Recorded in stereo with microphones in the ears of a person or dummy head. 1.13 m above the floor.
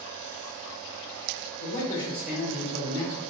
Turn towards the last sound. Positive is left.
turn(degrees=-60)  # may be behind; listen again after turning